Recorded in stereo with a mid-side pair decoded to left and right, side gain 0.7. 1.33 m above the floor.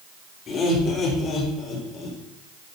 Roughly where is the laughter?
Ahead left.